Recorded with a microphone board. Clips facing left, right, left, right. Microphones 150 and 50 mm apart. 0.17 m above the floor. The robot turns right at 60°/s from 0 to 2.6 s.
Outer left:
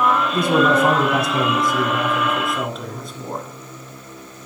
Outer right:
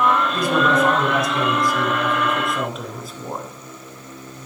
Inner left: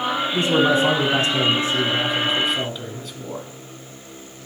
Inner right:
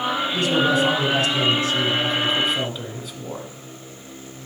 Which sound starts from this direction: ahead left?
A man speaking, at 0.3 s.